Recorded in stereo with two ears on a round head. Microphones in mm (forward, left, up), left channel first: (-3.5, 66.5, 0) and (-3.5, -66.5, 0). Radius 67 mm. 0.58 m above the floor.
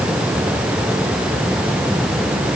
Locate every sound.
Only background noise.